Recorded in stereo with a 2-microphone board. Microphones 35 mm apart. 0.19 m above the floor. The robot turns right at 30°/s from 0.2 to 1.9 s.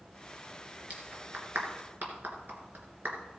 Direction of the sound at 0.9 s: 45° right (ahead or behind).